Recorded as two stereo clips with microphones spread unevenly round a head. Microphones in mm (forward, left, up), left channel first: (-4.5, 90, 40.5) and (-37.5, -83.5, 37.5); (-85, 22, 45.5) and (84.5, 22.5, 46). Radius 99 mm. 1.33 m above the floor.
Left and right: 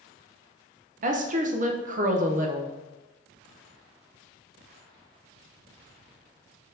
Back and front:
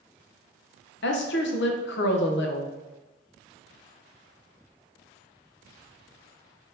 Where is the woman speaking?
150° right, 0.6 m.